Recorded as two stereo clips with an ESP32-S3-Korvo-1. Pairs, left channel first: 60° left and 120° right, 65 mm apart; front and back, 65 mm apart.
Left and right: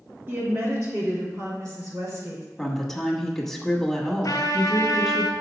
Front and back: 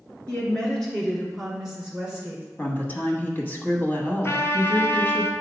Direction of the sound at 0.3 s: 70° right.